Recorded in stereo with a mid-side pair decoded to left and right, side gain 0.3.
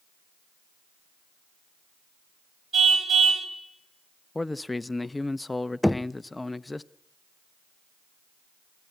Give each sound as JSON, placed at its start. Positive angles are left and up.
{"t": 2.7, "sound": "a car horn", "azimuth_deg": -60, "distance_m": 2.5}
{"t": 4.3, "sound": "a man speaking", "azimuth_deg": 25, "distance_m": 0.8}
{"t": 5.8, "sound": "knocking", "azimuth_deg": 10, "distance_m": 0.6}